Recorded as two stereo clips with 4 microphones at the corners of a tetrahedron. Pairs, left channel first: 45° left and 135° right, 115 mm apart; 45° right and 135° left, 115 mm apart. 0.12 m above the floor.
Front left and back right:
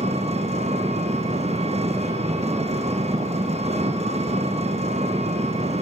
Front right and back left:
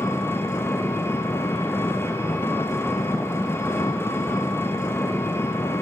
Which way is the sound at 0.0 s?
115° right.